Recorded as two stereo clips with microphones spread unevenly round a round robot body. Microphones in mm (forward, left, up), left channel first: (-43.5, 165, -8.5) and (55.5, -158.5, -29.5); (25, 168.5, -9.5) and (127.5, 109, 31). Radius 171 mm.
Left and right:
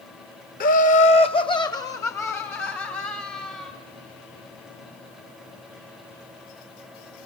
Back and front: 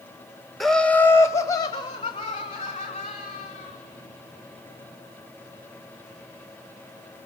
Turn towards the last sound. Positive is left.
turn(degrees=-165)